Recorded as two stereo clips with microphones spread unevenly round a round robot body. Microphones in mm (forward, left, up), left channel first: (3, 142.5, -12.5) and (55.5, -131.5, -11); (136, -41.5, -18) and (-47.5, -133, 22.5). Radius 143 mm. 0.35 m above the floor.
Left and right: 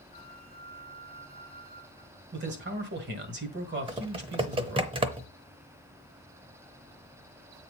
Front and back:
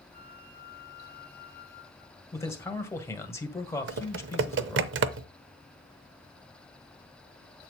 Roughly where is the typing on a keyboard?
Behind right.